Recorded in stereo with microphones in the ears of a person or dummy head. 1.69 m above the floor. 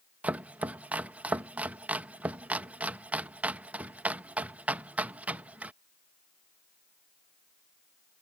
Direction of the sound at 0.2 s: 10° right (ahead or behind).